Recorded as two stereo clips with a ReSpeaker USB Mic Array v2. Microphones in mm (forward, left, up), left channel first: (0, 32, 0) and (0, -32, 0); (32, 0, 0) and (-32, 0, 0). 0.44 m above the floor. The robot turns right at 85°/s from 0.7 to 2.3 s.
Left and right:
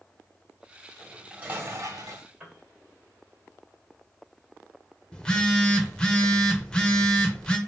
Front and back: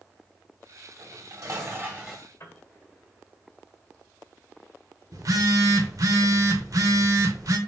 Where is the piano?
25° right, 1.5 m.